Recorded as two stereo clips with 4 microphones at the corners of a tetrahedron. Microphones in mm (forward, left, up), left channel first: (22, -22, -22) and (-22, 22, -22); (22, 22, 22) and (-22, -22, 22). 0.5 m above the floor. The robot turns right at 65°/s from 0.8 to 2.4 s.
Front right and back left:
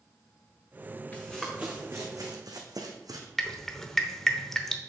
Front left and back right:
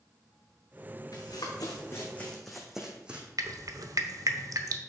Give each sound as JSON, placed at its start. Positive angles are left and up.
{"t": 1.1, "sound": "running footsteps", "azimuth_deg": 25, "distance_m": 2.0}
{"t": 3.4, "sound": "dripping", "azimuth_deg": -125, "distance_m": 0.8}